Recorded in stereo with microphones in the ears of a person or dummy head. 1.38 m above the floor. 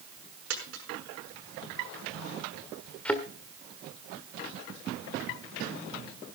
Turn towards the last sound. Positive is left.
turn(degrees=10)  # may be behind; listen again after turning